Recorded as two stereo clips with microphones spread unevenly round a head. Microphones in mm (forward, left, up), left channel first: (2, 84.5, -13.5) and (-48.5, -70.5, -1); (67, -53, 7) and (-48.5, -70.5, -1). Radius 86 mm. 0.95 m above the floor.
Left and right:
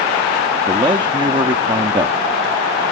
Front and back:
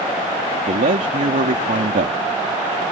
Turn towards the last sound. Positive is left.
turn(degrees=-175)